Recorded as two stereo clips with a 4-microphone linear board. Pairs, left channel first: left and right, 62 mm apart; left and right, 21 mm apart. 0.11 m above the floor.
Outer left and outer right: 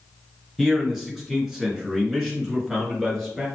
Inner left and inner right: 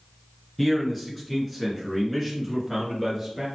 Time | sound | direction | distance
0.6 | a man speaking | centre (ahead or behind) | 1.6 m